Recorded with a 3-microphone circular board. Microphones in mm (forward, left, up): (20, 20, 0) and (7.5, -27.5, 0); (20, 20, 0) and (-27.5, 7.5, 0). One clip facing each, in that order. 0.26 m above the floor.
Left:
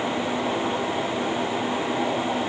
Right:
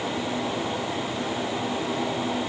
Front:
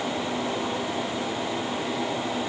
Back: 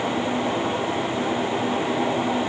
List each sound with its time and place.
Only background noise.